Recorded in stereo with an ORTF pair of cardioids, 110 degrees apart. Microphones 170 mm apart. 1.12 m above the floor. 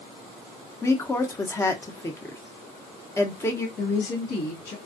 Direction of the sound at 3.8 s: 70° left.